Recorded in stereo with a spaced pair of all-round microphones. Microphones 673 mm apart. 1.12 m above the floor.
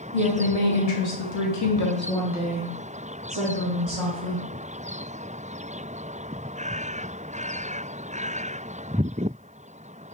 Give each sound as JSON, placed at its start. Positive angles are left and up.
{"t": 0.1, "sound": "a woman speaking", "side_deg": 70, "distance_m": 1.3}